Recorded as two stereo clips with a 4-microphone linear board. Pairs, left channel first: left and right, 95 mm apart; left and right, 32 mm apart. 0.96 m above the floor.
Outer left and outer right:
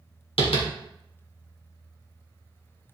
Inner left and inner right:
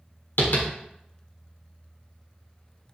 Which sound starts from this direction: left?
Tapping, at 0.4 s.